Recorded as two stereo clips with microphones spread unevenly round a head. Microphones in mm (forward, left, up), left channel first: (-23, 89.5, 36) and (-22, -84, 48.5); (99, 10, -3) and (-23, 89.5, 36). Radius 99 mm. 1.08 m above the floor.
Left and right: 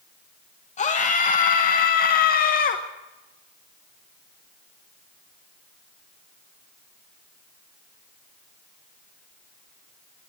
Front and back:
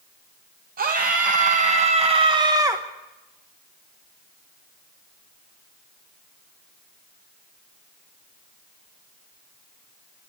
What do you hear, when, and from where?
0.8 s a scream: 130° left, 1.6 m; by 2.8 s 70° left, 1.2 m